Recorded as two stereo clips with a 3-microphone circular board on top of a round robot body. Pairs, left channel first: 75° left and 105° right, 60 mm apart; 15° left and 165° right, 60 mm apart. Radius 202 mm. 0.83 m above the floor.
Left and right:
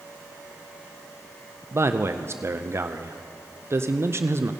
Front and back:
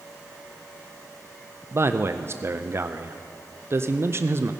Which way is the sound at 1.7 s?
135° right.